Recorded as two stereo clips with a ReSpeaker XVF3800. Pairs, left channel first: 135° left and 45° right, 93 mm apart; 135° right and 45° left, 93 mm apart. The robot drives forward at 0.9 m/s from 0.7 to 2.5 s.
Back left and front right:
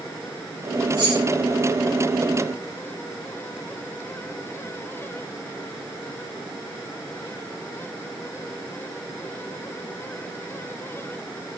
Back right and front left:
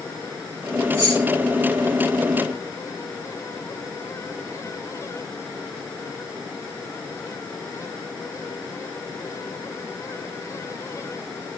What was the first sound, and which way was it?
Keys jangling, 15° right.